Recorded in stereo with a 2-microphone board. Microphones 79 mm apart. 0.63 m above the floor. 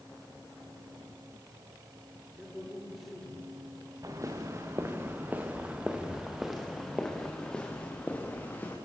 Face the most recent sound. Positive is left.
turn(degrees=25)  # may be behind; listen again after turning